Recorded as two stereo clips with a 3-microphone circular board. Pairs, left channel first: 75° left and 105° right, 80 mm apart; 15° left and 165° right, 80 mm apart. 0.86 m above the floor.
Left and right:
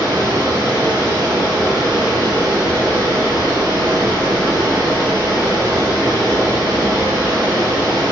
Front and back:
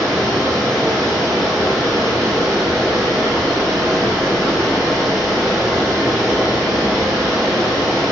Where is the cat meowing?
I don't hear a cat meowing.